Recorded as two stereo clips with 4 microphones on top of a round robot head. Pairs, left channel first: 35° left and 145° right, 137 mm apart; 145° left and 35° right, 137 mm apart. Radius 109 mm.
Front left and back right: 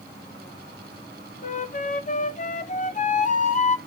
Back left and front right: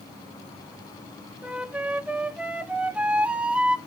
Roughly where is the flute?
Ahead left.